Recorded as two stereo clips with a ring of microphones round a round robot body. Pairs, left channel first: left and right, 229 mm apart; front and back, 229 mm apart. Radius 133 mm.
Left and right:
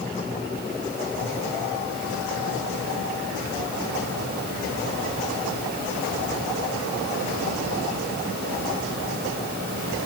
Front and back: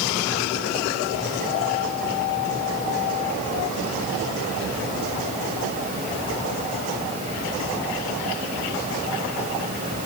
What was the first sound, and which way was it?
Only background noise.